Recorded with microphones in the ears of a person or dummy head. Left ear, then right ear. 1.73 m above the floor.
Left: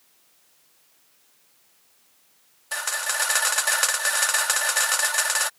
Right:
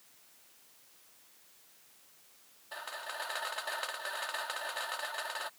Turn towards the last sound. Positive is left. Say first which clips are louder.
# left 14 dB
turn(degrees=80)